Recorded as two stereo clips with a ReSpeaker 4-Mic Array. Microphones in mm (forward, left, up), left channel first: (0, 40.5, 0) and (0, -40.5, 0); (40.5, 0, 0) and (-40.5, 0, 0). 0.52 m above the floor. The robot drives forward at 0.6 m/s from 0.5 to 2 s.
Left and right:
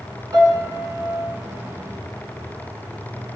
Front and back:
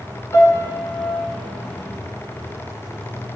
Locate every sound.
0.3 s a piano: 55° right, 3 m; by 1.3 s 60° right, 3 m